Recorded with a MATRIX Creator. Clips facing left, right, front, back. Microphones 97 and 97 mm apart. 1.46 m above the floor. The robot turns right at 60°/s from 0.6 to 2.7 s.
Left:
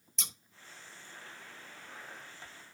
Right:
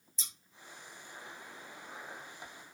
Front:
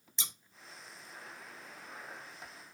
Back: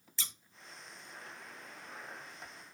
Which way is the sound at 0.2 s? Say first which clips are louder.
Left 6 dB, front 1 dB; 70° left.